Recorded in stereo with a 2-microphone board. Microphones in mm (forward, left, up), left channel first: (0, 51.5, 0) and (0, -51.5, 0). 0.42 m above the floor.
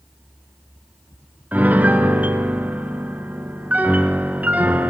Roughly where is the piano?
Centre.